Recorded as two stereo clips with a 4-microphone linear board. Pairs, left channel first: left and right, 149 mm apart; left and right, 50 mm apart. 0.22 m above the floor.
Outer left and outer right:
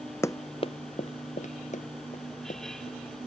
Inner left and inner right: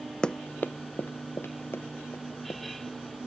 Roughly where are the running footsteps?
Centre.